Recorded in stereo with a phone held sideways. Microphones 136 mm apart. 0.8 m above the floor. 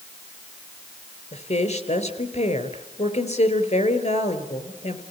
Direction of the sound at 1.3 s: 50° left (ahead or behind).